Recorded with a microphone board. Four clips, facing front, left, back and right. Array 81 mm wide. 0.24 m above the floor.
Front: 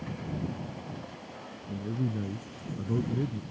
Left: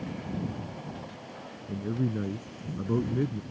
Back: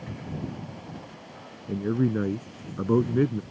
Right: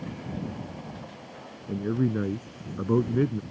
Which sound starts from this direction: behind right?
A man speaking, at 1.7 s.